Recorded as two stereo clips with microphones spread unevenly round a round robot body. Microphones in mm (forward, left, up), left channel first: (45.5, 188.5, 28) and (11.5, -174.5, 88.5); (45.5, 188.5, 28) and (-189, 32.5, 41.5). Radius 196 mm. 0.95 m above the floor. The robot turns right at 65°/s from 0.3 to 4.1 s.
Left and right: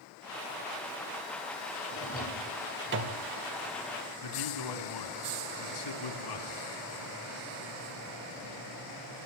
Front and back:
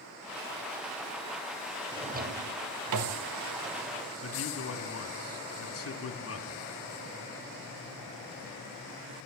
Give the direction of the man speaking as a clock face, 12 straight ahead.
10 o'clock.